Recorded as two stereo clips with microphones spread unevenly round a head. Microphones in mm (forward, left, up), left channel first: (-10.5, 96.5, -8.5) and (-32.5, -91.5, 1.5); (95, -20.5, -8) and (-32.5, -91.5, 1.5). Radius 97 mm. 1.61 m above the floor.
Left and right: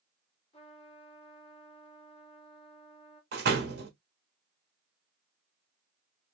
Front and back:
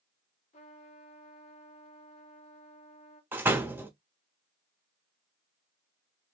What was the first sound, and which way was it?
A trumpet, 30° left.